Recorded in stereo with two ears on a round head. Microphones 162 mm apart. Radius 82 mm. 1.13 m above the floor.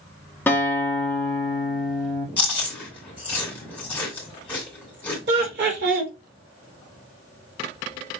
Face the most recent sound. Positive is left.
turn(degrees=-65)  # may be behind; listen again after turning